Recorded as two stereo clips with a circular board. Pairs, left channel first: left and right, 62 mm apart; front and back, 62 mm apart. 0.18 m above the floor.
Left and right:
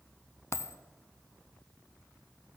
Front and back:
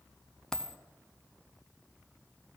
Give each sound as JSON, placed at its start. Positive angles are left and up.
{"t": 0.5, "sound": "a dropped coin", "azimuth_deg": 80, "distance_m": 0.6}